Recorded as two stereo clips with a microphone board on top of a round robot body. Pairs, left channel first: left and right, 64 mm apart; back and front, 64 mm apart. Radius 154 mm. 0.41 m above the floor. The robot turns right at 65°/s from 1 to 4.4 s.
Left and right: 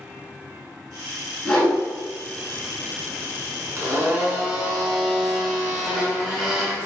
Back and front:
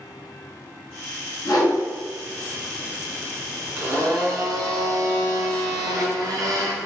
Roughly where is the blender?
Ahead right.